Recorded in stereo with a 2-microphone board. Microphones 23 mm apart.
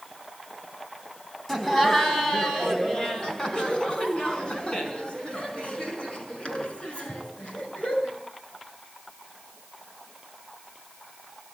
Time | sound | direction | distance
1.5 | laughter | 15° left (ahead or behind) | 4.5 m